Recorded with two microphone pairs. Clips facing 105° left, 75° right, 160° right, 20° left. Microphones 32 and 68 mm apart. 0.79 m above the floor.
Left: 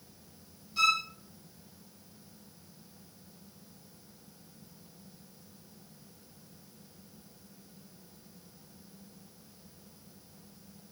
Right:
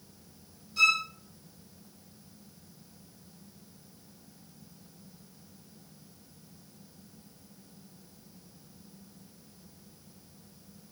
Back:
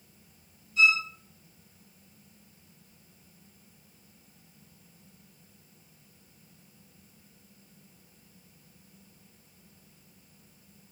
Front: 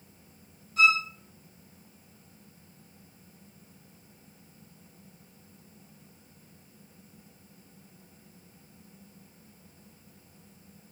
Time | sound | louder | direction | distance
0.8 | a violin | right 3 dB, front 1 dB | 35° left | 1.4 m